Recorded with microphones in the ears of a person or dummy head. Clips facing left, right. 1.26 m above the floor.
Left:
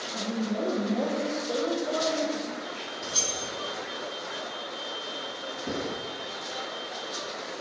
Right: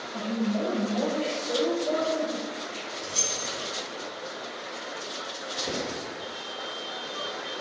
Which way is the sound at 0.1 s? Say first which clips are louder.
Right 2 dB; 40° left (ahead or behind).